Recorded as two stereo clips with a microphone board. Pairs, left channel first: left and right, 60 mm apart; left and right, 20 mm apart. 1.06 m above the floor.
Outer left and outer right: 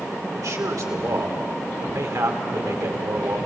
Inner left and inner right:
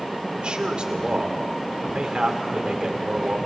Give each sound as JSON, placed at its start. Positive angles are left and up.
{"t": 0.4, "sound": "a man speaking", "side_deg": -65, "distance_m": 2.5}